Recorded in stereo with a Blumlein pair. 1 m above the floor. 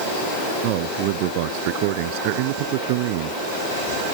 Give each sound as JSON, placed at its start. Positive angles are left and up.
{"t": 0.6, "sound": "a man speaking", "azimuth_deg": -45}